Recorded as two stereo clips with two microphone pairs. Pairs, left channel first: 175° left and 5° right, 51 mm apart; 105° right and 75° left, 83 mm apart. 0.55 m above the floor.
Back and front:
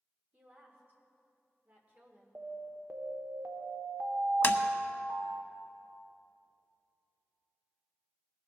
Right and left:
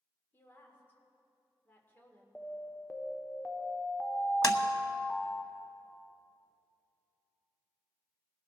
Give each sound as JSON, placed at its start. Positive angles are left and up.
{"t": 0.3, "sound": "a woman speaking", "azimuth_deg": -50, "distance_m": 1.9}
{"t": 2.4, "sound": "an alarm", "azimuth_deg": -40, "distance_m": 0.9}
{"t": 4.4, "sound": "tapping", "azimuth_deg": -145, "distance_m": 0.6}